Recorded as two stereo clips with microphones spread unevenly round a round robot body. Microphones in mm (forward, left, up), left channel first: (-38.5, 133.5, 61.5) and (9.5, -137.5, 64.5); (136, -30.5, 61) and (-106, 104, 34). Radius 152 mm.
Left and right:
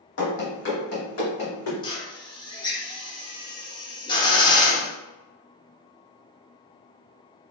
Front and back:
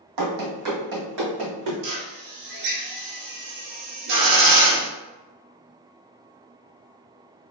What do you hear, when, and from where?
0.2 s running footsteps: 145° left, 1.4 m; by 1.7 s 130° left, 2.5 m
1.8 s a drill: 175° left, 0.7 m